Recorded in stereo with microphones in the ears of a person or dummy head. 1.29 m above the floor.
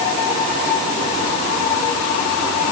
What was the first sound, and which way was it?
Only background noise.